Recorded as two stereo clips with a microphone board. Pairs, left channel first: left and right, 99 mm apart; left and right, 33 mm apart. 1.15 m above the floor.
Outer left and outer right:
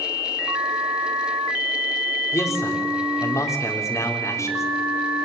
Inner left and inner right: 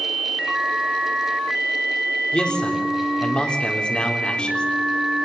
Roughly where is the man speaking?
Left.